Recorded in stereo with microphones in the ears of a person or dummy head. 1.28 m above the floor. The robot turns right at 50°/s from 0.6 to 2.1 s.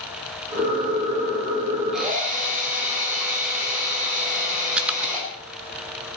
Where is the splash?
5° right (ahead or behind), 1.1 m.